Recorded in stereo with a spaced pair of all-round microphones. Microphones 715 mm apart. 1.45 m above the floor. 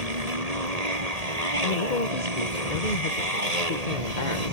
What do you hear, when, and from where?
0.0 s a motorcycle: 55° right (ahead or behind)
1.6 s a man speaking: 70° left (ahead or behind)